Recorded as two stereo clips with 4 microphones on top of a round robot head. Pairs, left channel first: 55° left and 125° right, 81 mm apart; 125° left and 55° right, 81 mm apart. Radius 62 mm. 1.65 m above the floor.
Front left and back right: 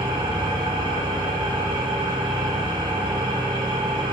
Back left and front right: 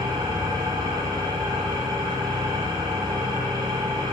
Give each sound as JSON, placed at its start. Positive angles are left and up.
{"t": 0.0, "sound": "an engine running", "azimuth_deg": -95, "distance_m": 0.7}